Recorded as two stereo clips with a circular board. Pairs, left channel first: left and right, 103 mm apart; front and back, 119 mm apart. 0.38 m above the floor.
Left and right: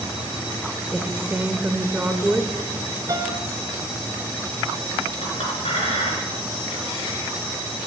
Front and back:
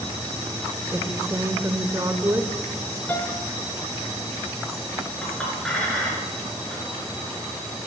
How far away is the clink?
About 4.5 m.